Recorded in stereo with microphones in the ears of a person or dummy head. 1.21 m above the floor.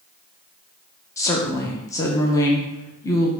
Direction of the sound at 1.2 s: 20° left (ahead or behind).